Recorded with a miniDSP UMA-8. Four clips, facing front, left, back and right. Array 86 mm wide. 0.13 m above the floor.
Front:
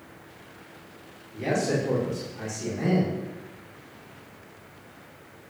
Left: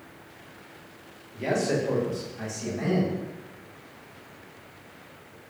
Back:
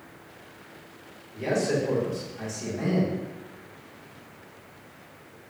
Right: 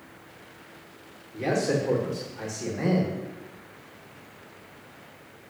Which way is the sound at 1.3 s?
75° right.